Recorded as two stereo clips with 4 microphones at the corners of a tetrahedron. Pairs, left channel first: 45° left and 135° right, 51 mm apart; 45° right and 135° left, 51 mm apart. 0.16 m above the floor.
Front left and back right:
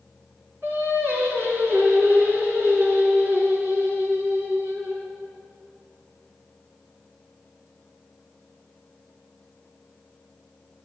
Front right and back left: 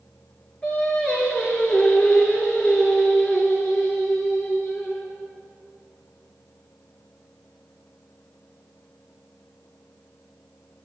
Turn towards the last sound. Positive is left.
turn(degrees=-110)